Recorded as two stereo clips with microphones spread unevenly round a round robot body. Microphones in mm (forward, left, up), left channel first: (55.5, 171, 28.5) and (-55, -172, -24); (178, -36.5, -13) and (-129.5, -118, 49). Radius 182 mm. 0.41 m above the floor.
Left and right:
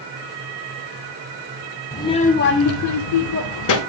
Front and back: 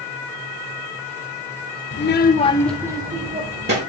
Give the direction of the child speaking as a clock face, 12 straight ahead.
12 o'clock.